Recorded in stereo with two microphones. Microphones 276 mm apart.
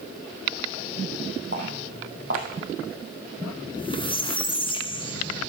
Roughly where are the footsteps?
Right.